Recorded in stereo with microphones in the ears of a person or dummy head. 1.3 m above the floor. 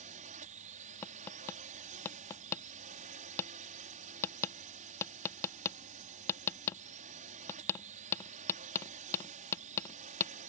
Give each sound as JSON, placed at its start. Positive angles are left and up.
{"t": 0.0, "sound": "a drone", "side_deg": -35}
{"t": 1.0, "sound": "tapping", "side_deg": 20}